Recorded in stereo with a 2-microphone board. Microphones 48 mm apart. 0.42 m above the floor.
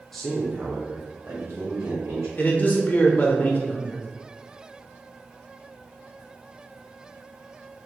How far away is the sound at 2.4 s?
About 0.9 m.